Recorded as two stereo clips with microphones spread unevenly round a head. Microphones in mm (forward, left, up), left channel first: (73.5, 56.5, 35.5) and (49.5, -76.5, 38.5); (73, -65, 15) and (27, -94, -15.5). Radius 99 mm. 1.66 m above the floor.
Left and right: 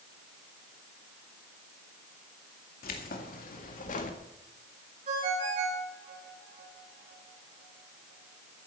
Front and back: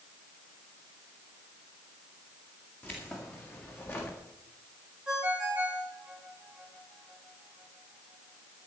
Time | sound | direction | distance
2.8 | keys jangling | 85° left | 2 m
5.1 | a ringtone | 70° right | 6.5 m